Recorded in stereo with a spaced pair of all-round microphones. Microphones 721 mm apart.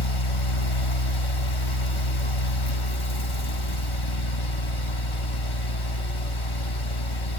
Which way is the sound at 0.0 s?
45° left (ahead or behind).